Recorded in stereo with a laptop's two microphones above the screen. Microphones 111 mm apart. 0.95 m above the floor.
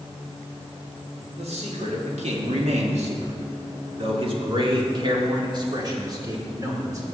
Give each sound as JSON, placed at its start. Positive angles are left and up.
{"t": 1.4, "sound": "a man speaking", "side_deg": -70, "distance_m": 1.8}